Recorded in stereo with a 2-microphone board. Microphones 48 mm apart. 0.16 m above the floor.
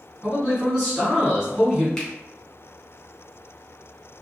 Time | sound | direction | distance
0.2 | a man speaking | 10° right (ahead or behind) | 1.3 m
2.0 | a finger snap | 10° left (ahead or behind) | 1.2 m